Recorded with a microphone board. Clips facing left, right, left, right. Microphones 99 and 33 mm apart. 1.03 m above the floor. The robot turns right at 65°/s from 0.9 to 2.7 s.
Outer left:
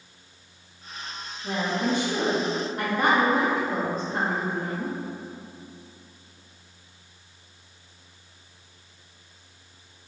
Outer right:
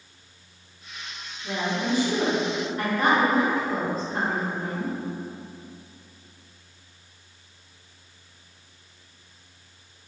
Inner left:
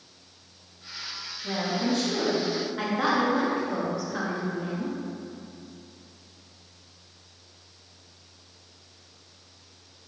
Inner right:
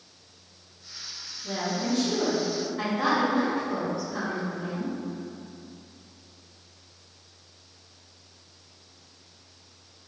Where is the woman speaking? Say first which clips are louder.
Outer left 1 dB, inner left 2 dB; 35° left, 1.6 m; by 4.9 s 120° left, 1.6 m.